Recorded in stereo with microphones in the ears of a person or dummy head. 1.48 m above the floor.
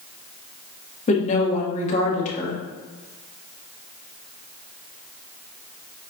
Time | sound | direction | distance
1.1 | a woman speaking | 40° left (ahead or behind) | 1.8 m